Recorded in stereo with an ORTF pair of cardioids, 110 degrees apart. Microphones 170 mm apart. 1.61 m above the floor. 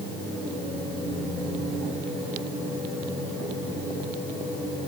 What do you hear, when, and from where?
Only background noise.